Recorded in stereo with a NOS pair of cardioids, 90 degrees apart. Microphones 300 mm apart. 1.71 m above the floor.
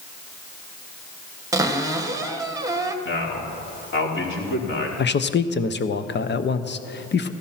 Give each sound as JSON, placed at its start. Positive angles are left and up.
{"t": 1.5, "sound": "a cupboard door", "azimuth_deg": -10, "distance_m": 1.5}
{"t": 3.0, "sound": "a man speaking", "azimuth_deg": 40, "distance_m": 4.5}
{"t": 5.0, "sound": "a man speaking", "azimuth_deg": 35, "distance_m": 1.2}